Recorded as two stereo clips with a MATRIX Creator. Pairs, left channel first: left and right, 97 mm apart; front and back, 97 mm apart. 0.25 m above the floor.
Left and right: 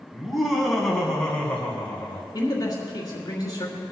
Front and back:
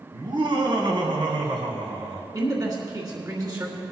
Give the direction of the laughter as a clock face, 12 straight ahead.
6 o'clock.